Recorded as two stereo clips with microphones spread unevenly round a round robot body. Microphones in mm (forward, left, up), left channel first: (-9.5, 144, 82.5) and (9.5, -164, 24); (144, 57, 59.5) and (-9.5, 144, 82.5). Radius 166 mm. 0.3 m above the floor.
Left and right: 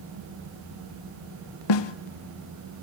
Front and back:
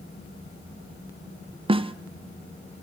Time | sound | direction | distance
1.7 | a snare drum | 85° left | 0.7 m